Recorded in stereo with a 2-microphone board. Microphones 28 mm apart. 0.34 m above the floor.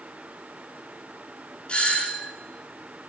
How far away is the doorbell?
About 6.5 m.